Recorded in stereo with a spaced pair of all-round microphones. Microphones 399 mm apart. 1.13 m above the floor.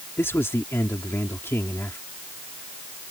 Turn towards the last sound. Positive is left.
turn(degrees=5)  # may be behind; listen again after turning